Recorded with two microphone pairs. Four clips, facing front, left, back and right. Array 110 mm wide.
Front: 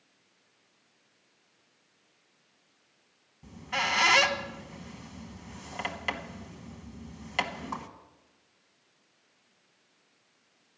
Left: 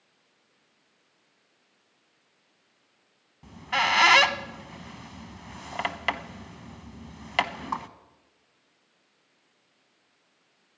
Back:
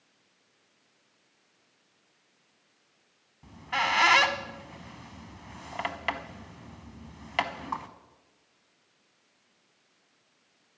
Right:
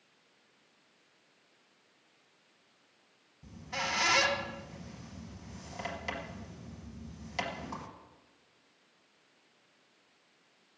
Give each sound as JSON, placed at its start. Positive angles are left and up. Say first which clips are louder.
{"t": 3.4, "sound": "a squeak", "louder": "left 11 dB, back 3 dB", "azimuth_deg": 110, "distance_m": 1.0}